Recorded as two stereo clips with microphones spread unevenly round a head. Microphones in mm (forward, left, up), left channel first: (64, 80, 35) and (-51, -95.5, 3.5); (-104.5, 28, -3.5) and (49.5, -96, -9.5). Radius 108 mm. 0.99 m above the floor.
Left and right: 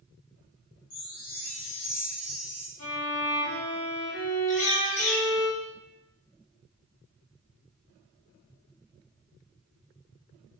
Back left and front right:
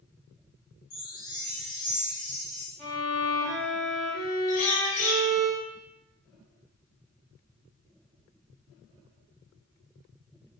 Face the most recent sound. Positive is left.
turn(degrees=105)